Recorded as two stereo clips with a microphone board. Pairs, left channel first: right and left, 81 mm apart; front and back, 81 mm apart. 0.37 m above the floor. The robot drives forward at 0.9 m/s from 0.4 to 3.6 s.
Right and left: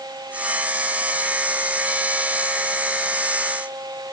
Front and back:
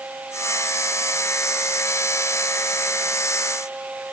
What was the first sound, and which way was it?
Only background noise.